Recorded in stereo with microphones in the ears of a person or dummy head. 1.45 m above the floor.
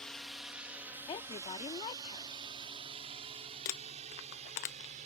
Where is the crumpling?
40° left (ahead or behind).